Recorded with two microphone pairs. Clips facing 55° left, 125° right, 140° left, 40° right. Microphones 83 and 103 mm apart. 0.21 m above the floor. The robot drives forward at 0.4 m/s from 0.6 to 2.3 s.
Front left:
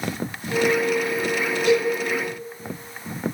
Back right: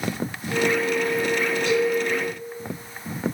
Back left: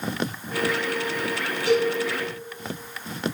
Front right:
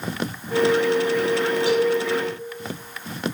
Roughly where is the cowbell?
Right.